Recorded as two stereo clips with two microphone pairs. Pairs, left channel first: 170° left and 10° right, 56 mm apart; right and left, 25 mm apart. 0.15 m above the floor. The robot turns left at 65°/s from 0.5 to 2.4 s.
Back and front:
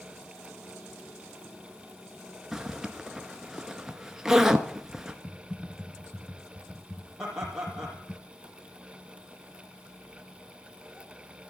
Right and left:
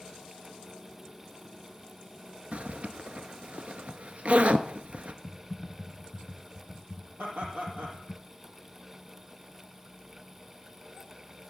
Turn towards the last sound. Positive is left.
turn(degrees=80)